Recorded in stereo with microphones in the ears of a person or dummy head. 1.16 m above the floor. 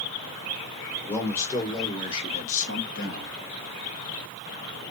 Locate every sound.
1.1 s a man speaking: 15° left (ahead or behind), 1.6 m; by 3.4 s 55° left (ahead or behind), 1.2 m